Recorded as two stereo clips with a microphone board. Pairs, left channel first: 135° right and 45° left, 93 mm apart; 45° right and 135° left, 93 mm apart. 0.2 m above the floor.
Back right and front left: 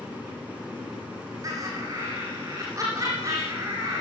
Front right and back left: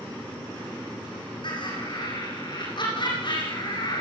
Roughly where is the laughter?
Ahead.